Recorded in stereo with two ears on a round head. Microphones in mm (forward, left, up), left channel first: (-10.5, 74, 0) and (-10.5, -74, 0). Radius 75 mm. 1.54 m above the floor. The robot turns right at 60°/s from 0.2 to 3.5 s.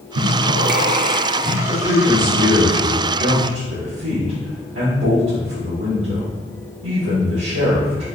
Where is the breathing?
85° right, 0.7 m; by 1.6 s 5° right, 0.7 m.